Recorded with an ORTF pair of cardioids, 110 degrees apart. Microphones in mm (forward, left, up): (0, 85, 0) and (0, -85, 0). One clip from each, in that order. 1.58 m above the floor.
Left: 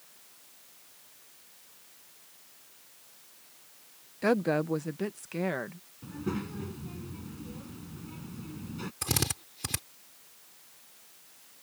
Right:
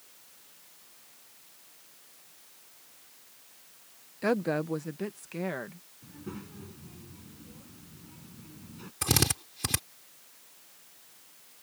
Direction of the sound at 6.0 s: 50° left.